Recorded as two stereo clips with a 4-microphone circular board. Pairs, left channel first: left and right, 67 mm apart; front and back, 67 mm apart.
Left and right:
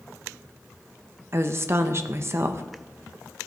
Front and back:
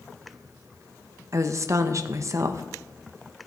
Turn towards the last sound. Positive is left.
turn(degrees=-140)